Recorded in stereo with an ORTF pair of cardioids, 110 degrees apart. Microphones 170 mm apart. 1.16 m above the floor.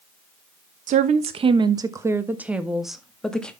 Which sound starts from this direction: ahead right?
A woman speaking, at 0.9 s.